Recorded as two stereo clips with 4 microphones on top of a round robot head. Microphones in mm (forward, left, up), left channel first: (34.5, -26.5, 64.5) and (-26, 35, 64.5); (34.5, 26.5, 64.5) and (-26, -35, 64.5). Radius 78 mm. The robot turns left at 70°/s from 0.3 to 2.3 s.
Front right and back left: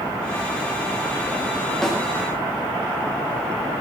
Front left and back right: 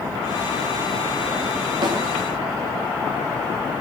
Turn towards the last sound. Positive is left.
turn(degrees=-160)